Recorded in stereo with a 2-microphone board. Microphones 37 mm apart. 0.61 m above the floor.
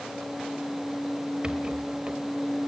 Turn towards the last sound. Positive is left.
turn(degrees=-25)  # may be behind; listen again after turning